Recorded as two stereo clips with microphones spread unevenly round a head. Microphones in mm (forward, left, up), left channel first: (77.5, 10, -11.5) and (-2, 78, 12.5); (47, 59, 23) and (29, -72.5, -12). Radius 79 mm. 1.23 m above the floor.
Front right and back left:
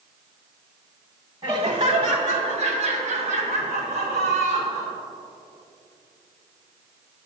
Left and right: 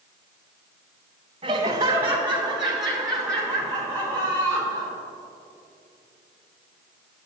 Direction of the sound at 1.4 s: 160° right.